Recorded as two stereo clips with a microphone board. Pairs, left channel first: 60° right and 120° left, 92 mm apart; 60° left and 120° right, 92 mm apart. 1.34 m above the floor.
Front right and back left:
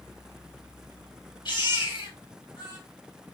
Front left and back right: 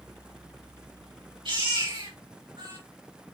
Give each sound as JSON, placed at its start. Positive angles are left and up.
{"t": 1.4, "sound": "a baby crying", "azimuth_deg": -95, "distance_m": 4.5}